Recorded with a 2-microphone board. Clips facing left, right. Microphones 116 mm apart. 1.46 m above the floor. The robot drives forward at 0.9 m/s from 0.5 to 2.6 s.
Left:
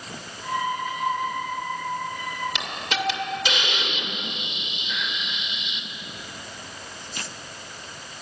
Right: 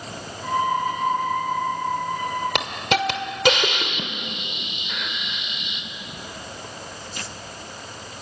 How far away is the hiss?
About 2 m.